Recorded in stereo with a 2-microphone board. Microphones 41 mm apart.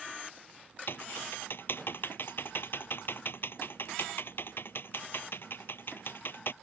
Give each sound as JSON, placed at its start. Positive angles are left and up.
{"t": 0.9, "sound": "typing on a keyboard", "side_deg": 60}